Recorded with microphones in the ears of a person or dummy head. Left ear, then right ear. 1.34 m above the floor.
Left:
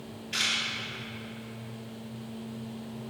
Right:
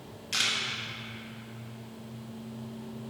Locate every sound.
0.3 s a camera shutter: 80° right, 1.6 m